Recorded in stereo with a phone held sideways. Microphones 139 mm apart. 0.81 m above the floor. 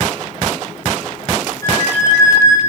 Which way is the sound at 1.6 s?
20° left (ahead or behind).